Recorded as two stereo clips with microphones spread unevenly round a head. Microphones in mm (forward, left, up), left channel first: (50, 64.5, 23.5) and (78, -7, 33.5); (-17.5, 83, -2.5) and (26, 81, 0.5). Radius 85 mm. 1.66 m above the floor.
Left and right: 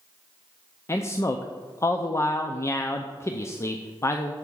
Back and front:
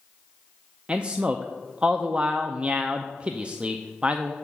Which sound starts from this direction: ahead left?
A man speaking, at 0.9 s.